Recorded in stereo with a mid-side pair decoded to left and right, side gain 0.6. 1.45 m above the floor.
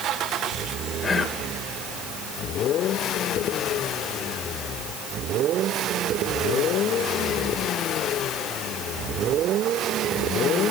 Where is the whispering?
35° left, 2 m.